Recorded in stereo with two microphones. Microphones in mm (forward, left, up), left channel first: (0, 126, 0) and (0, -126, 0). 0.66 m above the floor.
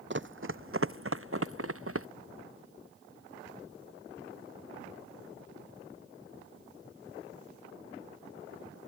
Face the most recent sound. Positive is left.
turn(degrees=-60)  # may be behind; listen again after turning